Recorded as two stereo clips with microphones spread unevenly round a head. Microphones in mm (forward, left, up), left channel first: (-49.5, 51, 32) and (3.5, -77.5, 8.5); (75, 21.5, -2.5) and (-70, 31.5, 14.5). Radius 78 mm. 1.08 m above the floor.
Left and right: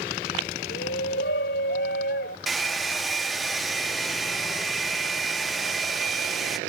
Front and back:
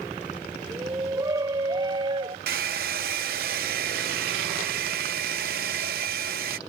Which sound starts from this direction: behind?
A hair dryer, at 2.5 s.